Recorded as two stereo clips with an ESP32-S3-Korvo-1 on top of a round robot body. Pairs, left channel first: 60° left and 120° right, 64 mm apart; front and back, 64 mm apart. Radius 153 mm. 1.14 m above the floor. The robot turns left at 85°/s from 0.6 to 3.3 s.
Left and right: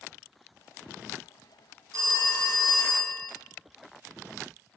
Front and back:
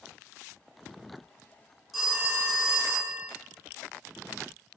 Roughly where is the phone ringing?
Right.